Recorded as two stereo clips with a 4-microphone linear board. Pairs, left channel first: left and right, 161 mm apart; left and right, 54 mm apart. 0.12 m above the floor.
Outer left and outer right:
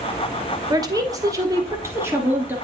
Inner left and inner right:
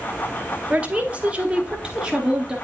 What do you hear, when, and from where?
0.7 s a woman speaking: 25° right (ahead or behind), 1.2 m; by 2.5 s 10° right (ahead or behind), 1.6 m